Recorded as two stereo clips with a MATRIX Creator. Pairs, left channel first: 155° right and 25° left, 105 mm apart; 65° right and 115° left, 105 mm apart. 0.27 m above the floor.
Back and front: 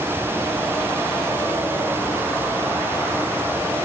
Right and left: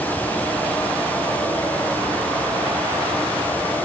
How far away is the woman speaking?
I don't hear a woman speaking.